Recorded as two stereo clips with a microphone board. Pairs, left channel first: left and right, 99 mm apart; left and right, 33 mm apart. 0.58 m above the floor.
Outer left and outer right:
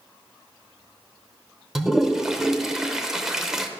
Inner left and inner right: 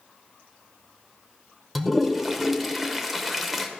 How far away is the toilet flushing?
About 0.7 m.